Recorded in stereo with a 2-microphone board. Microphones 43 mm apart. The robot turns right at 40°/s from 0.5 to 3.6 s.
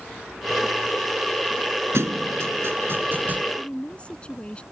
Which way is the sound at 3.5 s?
30° left (ahead or behind).